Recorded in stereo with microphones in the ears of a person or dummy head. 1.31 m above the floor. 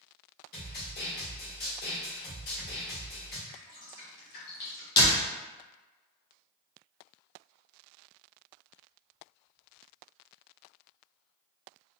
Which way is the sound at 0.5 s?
55° left (ahead or behind).